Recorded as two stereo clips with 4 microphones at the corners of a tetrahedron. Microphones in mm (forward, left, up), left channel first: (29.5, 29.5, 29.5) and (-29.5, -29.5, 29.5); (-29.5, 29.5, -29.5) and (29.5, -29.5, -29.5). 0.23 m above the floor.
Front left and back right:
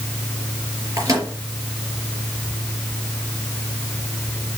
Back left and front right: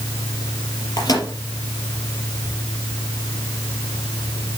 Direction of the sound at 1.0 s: Straight behind.